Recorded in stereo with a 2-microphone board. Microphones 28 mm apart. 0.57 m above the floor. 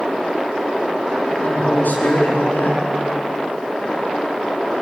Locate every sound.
1.4 s a man speaking: 80° left, 7.5 m